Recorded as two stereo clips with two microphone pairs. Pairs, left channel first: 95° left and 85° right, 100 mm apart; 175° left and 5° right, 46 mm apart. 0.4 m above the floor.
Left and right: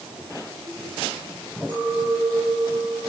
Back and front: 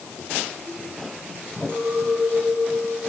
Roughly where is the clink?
Ahead right.